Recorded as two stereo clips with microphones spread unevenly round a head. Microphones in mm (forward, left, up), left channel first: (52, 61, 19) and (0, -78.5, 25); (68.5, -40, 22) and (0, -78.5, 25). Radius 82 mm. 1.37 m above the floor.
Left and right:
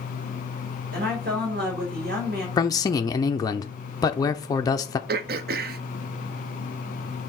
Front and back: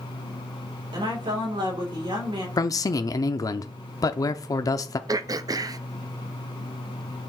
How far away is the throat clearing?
About 0.6 m.